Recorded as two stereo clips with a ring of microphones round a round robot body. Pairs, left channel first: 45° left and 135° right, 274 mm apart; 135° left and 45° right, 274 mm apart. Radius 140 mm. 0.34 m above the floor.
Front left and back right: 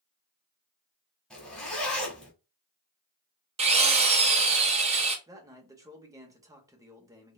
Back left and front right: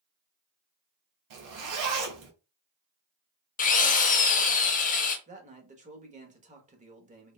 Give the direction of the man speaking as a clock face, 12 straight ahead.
2 o'clock.